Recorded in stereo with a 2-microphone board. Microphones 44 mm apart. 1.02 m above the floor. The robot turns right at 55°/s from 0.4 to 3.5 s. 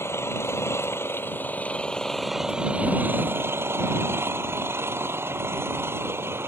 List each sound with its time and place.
0.0 s an engine running: 80° left; by 6.5 s 110° right